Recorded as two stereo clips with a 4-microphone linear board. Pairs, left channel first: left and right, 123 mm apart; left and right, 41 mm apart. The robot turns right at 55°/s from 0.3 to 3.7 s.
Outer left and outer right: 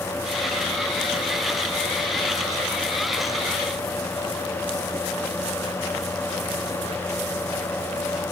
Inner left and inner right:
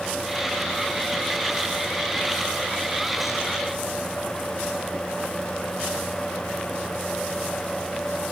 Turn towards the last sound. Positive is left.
No sound to turn to.